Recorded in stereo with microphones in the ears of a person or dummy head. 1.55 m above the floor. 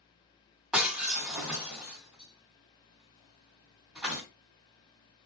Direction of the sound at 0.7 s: 5° right (ahead or behind).